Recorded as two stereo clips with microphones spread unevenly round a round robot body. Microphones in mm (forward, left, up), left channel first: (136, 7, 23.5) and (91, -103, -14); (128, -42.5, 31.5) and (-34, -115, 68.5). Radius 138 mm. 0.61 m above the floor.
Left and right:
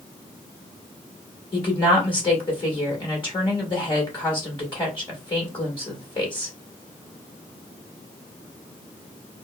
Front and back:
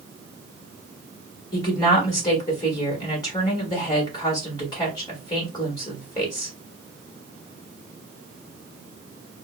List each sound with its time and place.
1.5 s a woman speaking: 20° left, 1.3 m